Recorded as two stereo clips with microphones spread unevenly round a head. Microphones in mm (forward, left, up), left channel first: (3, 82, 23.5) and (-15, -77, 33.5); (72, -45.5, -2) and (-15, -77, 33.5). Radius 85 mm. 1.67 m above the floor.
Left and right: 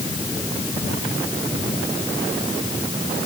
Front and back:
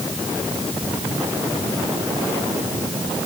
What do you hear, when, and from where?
Only background noise.